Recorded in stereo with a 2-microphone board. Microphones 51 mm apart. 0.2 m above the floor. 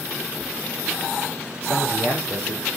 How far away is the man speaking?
About 7 m.